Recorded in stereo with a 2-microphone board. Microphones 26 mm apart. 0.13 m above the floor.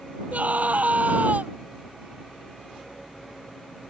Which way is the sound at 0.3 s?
65° right (ahead or behind).